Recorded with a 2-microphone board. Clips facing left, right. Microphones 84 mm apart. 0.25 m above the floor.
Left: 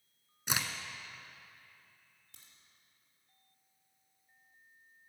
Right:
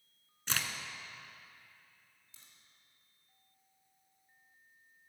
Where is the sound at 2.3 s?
60° left (ahead or behind), 2.5 m.